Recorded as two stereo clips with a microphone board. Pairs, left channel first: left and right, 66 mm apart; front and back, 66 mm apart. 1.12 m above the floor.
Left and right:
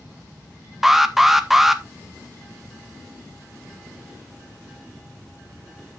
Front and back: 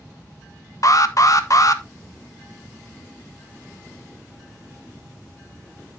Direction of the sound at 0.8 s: 5° right.